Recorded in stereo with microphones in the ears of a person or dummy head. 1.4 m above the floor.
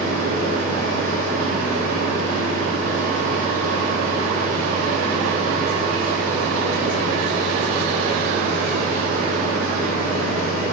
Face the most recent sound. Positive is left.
turn(degrees=-75)  # may be behind; listen again after turning